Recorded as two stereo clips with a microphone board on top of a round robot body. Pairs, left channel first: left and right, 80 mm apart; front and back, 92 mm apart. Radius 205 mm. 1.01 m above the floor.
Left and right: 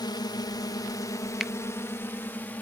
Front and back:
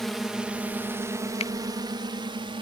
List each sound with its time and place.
0.0 s a drone: 85° left; by 2.6 s 160° left
1.4 s a finger snap: 5° right